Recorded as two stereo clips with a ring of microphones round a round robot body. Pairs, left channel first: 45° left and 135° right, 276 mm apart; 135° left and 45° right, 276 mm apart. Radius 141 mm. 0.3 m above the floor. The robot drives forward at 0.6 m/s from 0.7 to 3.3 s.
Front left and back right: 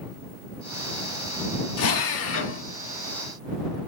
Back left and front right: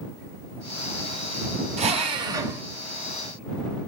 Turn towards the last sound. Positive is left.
turn(degrees=90)